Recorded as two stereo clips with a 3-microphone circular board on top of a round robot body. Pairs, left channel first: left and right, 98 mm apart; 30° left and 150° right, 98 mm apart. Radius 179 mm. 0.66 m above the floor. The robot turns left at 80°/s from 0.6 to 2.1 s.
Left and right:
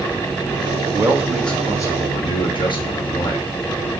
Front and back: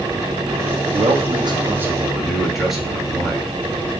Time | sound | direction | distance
0.9 | a man speaking | 145° right | 1.5 m